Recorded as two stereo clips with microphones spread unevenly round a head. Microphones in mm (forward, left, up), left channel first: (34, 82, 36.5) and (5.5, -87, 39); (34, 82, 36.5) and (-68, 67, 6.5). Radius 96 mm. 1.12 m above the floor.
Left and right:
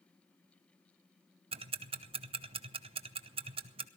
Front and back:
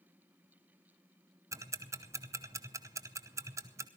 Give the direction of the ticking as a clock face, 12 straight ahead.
5 o'clock.